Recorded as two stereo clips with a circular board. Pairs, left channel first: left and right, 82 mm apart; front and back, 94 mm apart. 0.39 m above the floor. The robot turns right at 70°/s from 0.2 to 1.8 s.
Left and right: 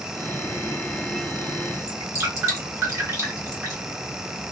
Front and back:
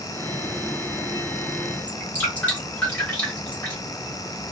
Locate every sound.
1.9 s dripping: 65° right, 1.8 m